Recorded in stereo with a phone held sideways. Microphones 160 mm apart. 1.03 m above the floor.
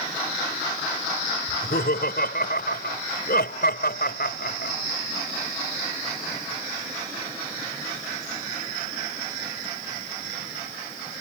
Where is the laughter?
80° left.